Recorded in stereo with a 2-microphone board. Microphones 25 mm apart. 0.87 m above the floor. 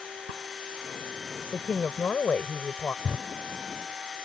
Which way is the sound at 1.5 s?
80° left.